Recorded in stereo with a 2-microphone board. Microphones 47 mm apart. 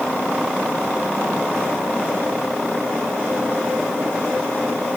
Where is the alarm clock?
No alarm clock in this recording.